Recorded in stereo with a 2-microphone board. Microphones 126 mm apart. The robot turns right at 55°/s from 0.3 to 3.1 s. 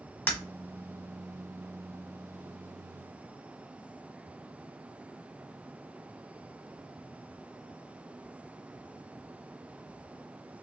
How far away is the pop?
I don't hear a pop.